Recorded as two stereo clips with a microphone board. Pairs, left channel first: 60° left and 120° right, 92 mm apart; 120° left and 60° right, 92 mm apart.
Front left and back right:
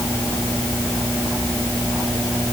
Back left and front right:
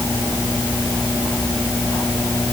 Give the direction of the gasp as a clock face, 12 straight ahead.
I don't hear a gasp.